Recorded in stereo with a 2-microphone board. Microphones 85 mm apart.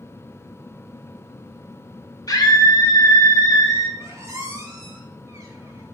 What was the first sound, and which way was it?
A scream, 50° left (ahead or behind).